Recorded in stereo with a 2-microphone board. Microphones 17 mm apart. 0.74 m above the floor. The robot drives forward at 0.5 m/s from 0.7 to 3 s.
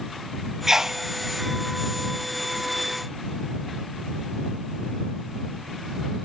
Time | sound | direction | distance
0.7 | a sneeze | 25° right (ahead or behind) | 0.9 m